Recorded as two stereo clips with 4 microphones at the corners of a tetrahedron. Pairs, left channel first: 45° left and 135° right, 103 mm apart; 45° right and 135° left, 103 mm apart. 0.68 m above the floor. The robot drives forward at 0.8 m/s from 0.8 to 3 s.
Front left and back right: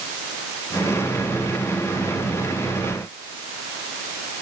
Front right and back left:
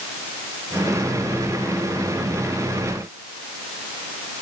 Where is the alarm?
I don't hear an alarm.